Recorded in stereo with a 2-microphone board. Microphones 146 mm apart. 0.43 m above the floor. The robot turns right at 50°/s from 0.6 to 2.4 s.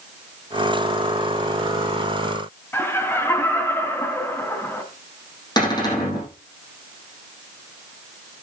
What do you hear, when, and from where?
2.7 s laughter: 15° left (ahead or behind), 3 m
5.6 s a cupboard door: 30° left (ahead or behind), 5.5 m